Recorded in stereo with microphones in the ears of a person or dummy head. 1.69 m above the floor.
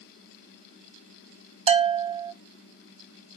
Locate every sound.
1.7 s a bell: 30° right (ahead or behind), 0.6 m